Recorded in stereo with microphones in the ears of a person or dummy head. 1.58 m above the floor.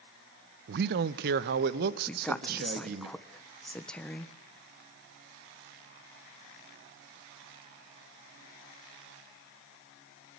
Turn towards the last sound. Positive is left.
turn(degrees=5)  # may be behind; listen again after turning